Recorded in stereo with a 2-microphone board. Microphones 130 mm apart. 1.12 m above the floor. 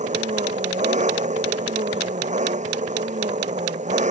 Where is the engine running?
65° right (ahead or behind).